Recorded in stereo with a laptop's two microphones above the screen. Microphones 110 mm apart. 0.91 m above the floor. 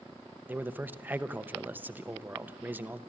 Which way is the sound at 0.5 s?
15° right (ahead or behind).